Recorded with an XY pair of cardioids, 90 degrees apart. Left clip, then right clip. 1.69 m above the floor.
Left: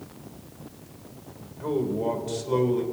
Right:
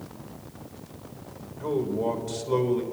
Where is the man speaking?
10° right, 2.5 m.